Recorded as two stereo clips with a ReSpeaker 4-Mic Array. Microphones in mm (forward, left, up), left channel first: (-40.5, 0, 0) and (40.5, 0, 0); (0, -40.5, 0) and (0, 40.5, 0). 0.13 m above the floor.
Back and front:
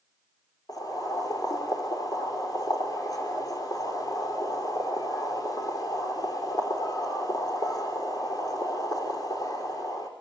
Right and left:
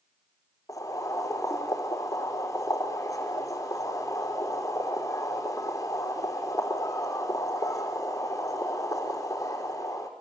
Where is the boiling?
140° right, 5.5 m.